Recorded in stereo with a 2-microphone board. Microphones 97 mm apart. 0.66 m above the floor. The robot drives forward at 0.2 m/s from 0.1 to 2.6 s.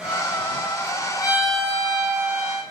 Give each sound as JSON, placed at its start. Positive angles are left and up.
{"t": 1.2, "sound": "a violin", "side_deg": 30, "distance_m": 3.0}